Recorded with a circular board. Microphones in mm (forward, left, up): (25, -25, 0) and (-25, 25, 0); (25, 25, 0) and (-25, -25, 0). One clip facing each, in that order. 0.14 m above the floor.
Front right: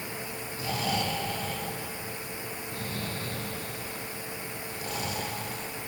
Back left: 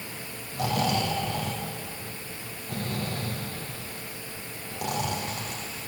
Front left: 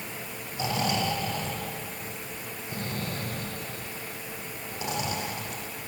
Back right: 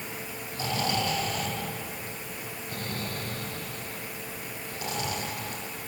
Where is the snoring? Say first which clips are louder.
Back left 5 dB, front left 1 dB; 115° left, 6 m.